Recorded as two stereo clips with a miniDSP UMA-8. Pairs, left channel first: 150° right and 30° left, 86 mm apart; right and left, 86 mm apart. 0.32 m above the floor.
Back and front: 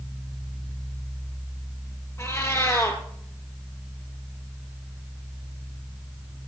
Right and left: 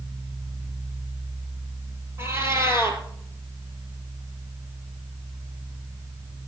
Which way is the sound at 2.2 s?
150° left.